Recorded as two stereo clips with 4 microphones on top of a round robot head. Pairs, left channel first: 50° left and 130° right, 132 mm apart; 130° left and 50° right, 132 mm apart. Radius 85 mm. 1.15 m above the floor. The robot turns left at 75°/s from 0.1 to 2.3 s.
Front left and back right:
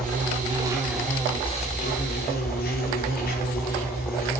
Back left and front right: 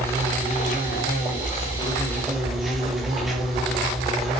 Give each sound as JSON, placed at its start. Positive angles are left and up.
{"t": 0.0, "sound": "an insect", "azimuth_deg": -155, "distance_m": 6.5}